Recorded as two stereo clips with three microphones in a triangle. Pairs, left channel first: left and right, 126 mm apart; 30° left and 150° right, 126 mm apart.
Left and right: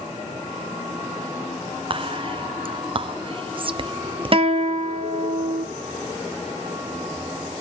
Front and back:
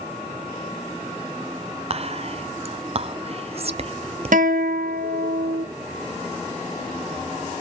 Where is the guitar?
140° right, 1.3 m.